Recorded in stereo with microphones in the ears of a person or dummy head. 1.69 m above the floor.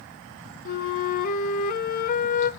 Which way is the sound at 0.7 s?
45° left (ahead or behind).